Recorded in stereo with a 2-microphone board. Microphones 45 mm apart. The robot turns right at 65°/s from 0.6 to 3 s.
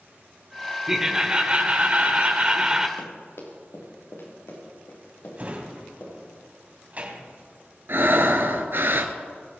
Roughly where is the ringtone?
I don't hear a ringtone.